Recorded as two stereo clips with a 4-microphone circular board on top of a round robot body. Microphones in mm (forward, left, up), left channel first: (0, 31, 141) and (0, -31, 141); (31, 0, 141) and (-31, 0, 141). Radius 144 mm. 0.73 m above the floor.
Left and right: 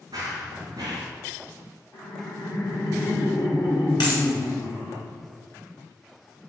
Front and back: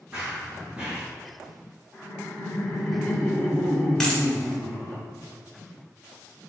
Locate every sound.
0.1 s running footsteps: 110° right, 0.7 m
1.9 s laughter: 85° left, 2 m
4.0 s a dropped coin: 85° left, 2.0 m